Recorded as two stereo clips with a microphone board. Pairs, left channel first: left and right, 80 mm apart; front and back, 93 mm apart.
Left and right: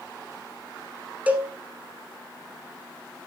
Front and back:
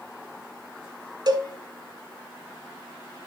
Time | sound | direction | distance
1.3 | a cowbell | 155° right | 1.0 m